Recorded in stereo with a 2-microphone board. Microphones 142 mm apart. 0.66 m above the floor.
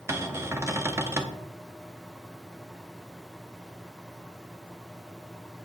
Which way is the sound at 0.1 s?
20° right (ahead or behind).